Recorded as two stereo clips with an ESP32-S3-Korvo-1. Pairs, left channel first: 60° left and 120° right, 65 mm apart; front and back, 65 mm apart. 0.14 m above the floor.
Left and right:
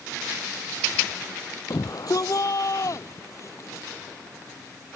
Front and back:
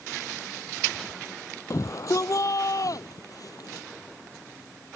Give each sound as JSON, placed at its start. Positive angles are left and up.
{"t": 1.7, "sound": "a shout", "azimuth_deg": 35}